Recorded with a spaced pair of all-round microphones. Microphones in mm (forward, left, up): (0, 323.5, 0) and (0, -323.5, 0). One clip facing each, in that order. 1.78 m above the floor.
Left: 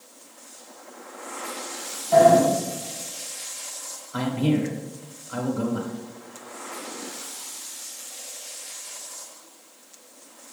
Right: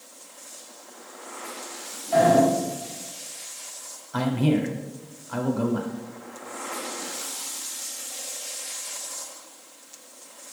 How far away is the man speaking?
About 1.3 m.